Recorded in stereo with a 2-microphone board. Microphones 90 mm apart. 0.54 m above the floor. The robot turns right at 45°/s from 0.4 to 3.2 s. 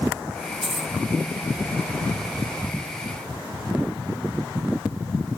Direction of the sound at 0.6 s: 85° right.